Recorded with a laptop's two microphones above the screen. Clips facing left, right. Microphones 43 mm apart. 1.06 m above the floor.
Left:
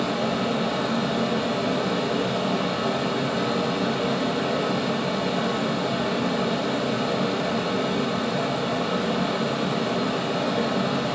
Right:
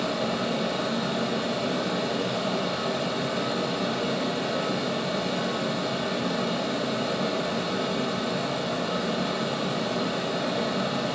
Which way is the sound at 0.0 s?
50° left (ahead or behind).